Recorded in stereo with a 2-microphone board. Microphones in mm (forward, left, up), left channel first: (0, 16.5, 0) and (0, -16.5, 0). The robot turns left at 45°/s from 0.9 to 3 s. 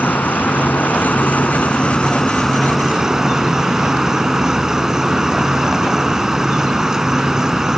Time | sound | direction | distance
0.0 | an insect | 75° left | ?